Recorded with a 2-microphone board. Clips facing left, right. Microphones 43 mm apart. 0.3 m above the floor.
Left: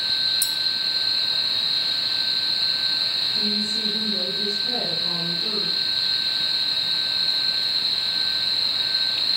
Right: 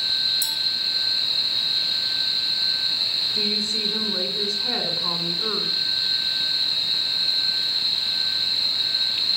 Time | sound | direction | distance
0.4 | a clink | 40° right (ahead or behind) | 1.3 m
3.3 | a woman speaking | 65° right (ahead or behind) | 3 m